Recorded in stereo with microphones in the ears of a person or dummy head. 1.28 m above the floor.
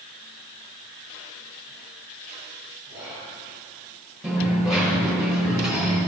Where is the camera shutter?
No camera shutter in this recording.